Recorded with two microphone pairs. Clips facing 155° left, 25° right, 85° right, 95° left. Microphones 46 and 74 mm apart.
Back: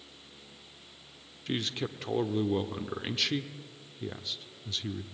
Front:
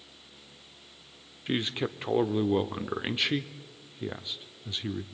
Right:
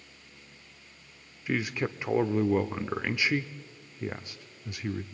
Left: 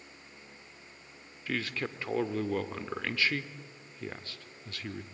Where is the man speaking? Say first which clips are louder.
Front 3 dB, right 4 dB; 45° right, 0.8 m.